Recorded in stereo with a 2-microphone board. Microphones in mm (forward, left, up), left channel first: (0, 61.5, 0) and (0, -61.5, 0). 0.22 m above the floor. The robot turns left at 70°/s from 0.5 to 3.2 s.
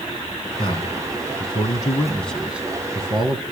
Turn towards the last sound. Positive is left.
turn(degrees=-55)